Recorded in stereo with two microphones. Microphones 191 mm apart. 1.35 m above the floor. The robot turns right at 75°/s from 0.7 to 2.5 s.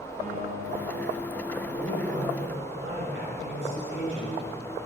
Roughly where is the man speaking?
Behind right.